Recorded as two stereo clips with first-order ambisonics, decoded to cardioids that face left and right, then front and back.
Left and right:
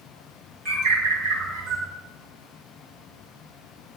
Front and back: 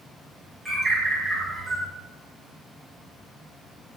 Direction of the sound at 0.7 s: 105° right.